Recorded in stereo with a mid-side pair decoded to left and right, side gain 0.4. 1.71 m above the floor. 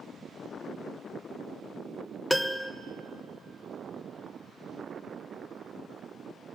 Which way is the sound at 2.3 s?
5° left.